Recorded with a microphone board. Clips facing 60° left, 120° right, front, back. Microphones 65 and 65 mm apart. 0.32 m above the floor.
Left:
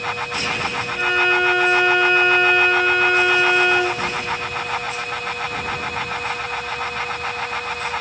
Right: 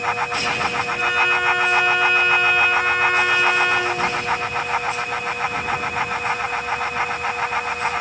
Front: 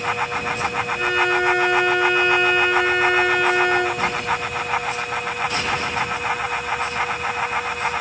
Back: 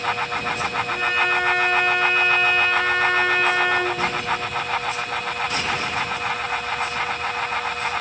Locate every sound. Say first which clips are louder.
0.9 s a violin: left 3 dB, front 2 dB; 150° left, 7.5 m